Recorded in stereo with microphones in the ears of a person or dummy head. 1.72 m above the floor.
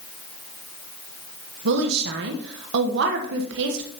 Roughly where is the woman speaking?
Right.